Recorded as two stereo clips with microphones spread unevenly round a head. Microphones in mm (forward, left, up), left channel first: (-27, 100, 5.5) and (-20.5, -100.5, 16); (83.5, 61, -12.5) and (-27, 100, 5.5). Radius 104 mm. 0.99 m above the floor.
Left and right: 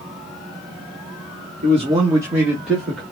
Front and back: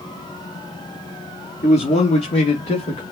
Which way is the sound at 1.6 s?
30° right.